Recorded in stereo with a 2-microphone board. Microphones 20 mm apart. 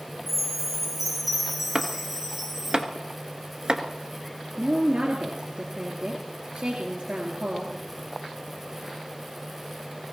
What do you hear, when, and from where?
0.3 s a chime: 5° right (ahead or behind), 6 m
1.8 s chopping: 45° right (ahead or behind), 1.3 m
4.6 s a woman speaking: 60° right (ahead or behind), 3 m